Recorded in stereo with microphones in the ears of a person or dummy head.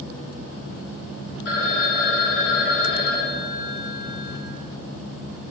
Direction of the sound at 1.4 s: 60° left (ahead or behind).